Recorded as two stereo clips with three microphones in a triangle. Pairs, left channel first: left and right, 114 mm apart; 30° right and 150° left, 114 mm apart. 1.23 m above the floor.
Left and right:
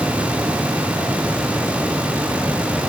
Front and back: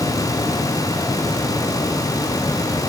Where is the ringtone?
No ringtone in this recording.